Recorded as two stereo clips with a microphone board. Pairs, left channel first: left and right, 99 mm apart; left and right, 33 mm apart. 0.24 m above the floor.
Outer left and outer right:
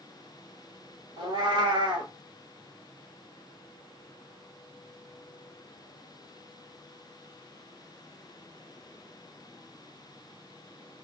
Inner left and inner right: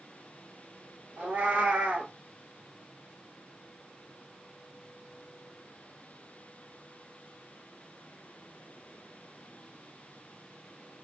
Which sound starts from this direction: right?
A cat meowing, at 1.2 s.